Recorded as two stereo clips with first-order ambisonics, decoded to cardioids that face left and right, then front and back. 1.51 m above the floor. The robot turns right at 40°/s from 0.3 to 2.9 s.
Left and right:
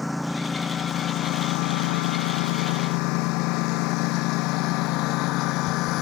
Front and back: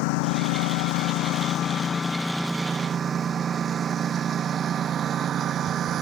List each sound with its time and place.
0.0 s a lawn mower: 5° left; by 6.0 s 125° left